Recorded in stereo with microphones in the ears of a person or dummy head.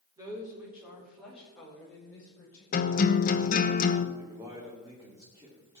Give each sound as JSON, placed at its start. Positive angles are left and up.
{"t": 0.2, "sound": "a woman speaking", "side_deg": -20, "distance_m": 4.0}
{"t": 2.7, "sound": "a guitar", "side_deg": 40, "distance_m": 0.8}
{"t": 4.2, "sound": "a man speaking", "side_deg": -20, "distance_m": 3.0}